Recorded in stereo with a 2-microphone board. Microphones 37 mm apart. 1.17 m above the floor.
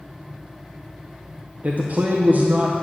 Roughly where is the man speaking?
Right.